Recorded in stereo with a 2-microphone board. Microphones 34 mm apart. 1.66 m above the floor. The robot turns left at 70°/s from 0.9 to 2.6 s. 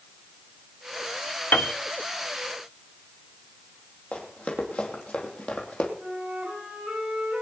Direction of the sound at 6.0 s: 50° right (ahead or behind).